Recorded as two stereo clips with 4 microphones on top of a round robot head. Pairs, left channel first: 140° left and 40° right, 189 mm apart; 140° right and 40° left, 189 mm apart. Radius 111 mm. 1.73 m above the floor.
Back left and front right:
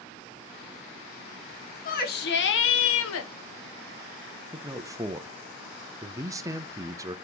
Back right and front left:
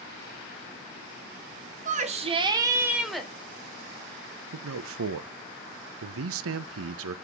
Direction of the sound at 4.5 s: 35° left.